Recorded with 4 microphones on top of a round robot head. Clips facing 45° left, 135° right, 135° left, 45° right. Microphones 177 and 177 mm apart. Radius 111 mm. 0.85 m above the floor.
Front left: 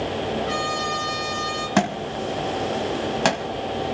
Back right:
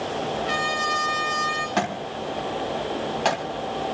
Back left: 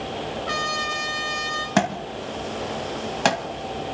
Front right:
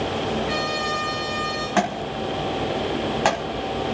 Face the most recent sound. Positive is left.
turn(degrees=85)